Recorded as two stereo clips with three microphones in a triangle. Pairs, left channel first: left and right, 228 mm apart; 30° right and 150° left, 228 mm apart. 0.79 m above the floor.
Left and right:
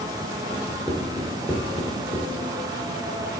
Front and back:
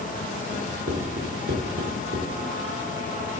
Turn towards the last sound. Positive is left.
turn(degrees=175)